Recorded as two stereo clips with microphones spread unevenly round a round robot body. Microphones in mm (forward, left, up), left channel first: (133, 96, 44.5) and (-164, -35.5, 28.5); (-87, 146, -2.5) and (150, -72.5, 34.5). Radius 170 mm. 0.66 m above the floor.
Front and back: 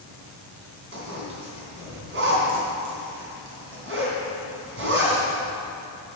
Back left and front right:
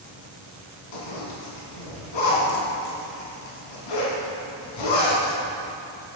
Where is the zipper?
150° left, 3 m.